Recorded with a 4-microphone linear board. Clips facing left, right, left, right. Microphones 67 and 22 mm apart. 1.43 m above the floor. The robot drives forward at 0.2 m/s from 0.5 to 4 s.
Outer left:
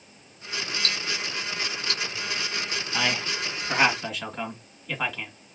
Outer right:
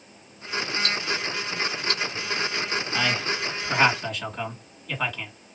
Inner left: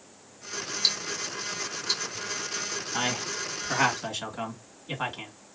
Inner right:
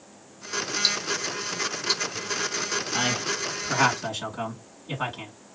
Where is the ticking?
5° right (ahead or behind), 1.5 m.